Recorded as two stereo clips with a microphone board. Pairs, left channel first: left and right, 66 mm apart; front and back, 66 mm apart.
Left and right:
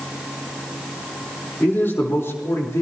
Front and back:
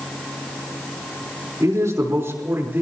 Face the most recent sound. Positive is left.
turn(degrees=125)